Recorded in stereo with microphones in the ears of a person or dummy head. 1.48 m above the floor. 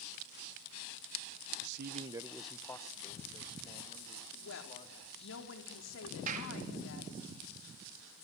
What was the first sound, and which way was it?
A man speaking, 70° right (ahead or behind).